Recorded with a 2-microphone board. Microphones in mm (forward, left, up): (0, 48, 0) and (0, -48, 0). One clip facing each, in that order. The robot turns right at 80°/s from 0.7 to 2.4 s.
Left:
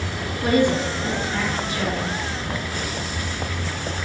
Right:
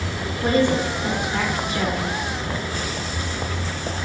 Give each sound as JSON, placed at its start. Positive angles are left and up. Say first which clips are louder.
{"t": 0.4, "sound": "a woman speaking", "louder": "even", "side_deg": -30, "distance_m": 0.9}